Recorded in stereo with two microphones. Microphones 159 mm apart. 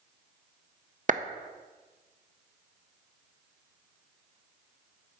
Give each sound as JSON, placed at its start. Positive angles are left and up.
{"t": 1.1, "sound": "a clap", "side_deg": -55, "distance_m": 0.8}